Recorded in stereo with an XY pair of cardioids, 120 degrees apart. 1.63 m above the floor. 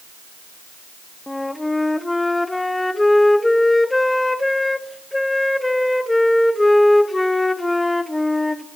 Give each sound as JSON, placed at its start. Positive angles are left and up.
{"t": 1.3, "sound": "a flute", "azimuth_deg": 10, "distance_m": 0.9}